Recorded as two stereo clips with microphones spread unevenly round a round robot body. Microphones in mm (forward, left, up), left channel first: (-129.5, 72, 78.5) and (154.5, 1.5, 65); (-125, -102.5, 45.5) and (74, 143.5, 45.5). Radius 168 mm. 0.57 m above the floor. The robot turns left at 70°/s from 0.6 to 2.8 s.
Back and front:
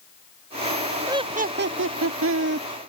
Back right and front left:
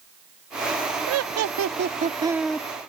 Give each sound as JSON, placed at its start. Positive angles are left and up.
{"t": 1.1, "sound": "laughter", "azimuth_deg": 60}